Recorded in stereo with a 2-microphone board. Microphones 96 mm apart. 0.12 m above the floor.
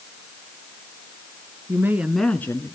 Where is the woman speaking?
30° right (ahead or behind), 1.4 m; by 2.8 s 40° left (ahead or behind), 1.3 m.